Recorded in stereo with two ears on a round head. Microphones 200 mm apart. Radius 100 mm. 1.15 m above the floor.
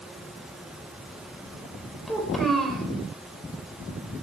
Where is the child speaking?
Centre (ahead or behind), 4 m.